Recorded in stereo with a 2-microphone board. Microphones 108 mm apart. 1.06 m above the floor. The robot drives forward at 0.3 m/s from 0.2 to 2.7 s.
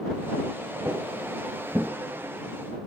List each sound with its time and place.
0.8 s footsteps: 20° right (ahead or behind), 1.3 m; by 1.9 s 10° right (ahead or behind), 1.2 m